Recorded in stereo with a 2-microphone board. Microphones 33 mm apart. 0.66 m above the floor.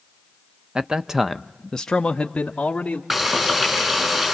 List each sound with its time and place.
0.8 s a man speaking: 25° right (ahead or behind), 0.5 m; by 3.0 s 35° left (ahead or behind), 1.1 m
3.1 s frying: 15° right (ahead or behind), 6 m